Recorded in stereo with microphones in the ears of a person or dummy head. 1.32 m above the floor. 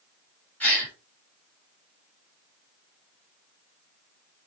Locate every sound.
0.6 s a gasp: 10° left (ahead or behind), 5 m